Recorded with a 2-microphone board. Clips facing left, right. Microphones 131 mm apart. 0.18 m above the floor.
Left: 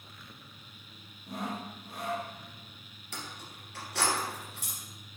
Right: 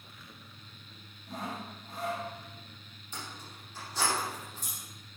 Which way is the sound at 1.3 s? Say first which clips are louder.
Left 2 dB; 65° left (ahead or behind).